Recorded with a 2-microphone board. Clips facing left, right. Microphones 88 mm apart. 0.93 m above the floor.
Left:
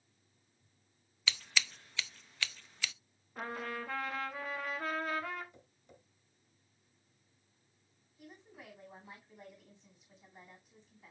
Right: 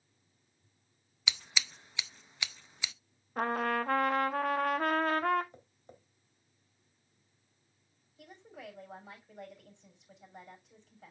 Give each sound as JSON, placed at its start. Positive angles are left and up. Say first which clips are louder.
{"t": 1.3, "sound": "scissors", "louder": "left 1 dB", "side_deg": -15, "distance_m": 0.5}
{"t": 3.4, "sound": "a trumpet", "louder": "right 9 dB", "side_deg": -60, "distance_m": 0.8}
{"t": 5.5, "sound": "tapping", "louder": "right 4 dB", "side_deg": -40, "distance_m": 2.5}
{"t": 8.2, "sound": "a woman speaking", "louder": "right 5 dB", "side_deg": -80, "distance_m": 6.0}